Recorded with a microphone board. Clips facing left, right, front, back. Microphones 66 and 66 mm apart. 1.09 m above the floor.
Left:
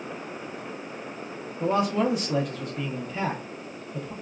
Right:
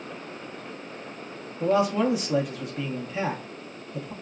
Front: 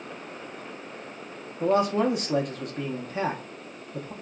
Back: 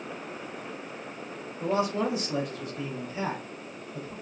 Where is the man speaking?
5° right, 0.9 m.